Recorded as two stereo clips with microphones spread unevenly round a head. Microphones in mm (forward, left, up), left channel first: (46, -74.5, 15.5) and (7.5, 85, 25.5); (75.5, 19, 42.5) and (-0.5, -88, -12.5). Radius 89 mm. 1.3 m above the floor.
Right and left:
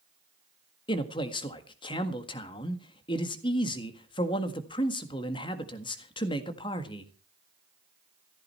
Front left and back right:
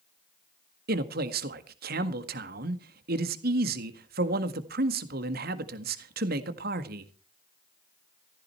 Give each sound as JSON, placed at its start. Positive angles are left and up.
{"t": 0.9, "sound": "a man speaking", "azimuth_deg": -140, "distance_m": 1.7}